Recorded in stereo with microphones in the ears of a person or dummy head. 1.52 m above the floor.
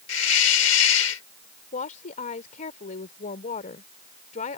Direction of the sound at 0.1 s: 90° left.